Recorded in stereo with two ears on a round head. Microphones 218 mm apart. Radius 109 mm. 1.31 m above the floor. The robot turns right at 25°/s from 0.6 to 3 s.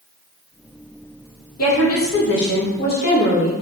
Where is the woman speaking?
110° left, 0.7 m; by 3.5 s 145° left, 0.7 m.